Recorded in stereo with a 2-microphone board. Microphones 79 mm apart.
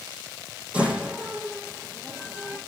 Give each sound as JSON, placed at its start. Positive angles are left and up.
{"t": 0.7, "sound": "a door slam", "side_deg": -15, "distance_m": 8.0}